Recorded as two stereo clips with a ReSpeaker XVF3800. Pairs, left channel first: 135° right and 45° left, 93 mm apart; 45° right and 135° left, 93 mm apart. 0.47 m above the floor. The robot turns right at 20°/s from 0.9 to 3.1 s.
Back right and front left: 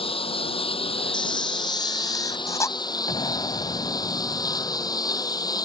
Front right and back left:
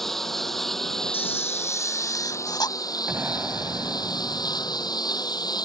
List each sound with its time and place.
0.0 s a lawn mower: 130° right; by 5.7 s 85° right
1.1 s a camera shutter: 110° right; by 2.8 s 75° right
3.1 s an explosion: 160° right; by 5.0 s 155° right